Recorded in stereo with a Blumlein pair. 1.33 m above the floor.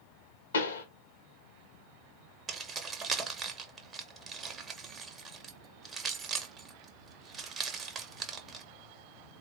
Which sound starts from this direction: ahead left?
A pop, at 0.5 s.